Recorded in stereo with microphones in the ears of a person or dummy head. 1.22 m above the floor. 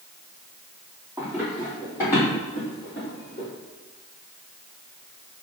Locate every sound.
1.2 s running footsteps: centre (ahead or behind), 1.8 m; by 3.5 s 35° left (ahead or behind), 2 m